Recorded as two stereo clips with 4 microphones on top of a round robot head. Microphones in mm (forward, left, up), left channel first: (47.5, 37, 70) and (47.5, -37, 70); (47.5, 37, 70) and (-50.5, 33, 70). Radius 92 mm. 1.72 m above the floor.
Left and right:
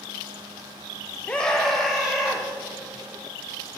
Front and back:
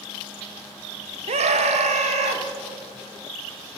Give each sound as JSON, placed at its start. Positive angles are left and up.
{"t": 1.3, "sound": "a scream", "azimuth_deg": 170, "distance_m": 0.8}